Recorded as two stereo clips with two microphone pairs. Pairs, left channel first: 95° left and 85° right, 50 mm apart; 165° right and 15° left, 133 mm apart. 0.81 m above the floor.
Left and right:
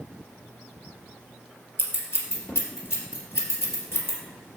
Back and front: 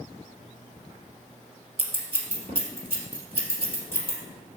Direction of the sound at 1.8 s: 60° left.